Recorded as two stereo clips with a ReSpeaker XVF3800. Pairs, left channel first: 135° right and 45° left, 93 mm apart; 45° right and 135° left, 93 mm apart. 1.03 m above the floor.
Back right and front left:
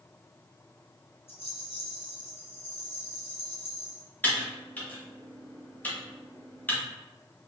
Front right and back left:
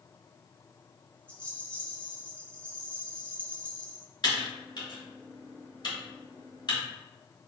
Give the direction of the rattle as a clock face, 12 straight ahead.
4 o'clock.